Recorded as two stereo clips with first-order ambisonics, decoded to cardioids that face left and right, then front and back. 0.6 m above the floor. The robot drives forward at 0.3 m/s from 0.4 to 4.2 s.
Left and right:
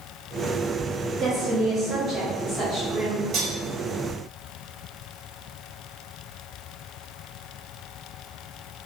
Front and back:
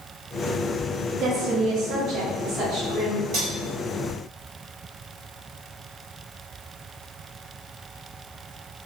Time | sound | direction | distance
1.2 | a woman speaking | 150° right | 0.6 m
3.3 | cutlery clinking | 140° right | 1.2 m